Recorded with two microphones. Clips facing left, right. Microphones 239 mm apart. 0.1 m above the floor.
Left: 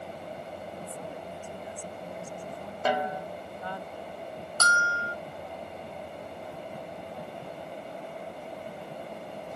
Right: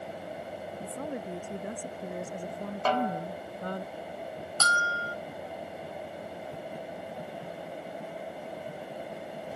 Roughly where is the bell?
Left.